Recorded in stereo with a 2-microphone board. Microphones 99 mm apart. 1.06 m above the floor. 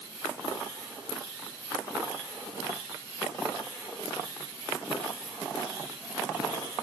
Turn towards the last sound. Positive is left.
No sound to turn to.